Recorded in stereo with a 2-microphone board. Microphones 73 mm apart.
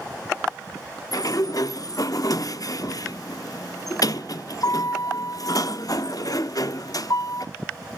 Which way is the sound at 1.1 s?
55° left (ahead or behind).